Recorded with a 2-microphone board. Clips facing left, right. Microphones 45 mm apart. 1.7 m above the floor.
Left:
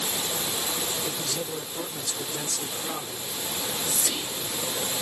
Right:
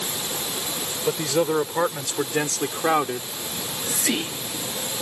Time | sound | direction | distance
1.1 | a man speaking | 70° right (ahead or behind) | ?
3.5 | whispering | 75° right (ahead or behind) | ?